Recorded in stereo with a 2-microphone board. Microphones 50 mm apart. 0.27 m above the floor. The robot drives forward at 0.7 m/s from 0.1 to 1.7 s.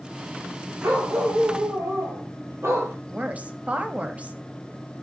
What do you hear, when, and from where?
0.8 s a dog barking: 75° right (ahead or behind), 3 m; by 3.0 s 65° right (ahead or behind), 3 m
3.1 s a woman speaking: 30° right (ahead or behind), 1.3 m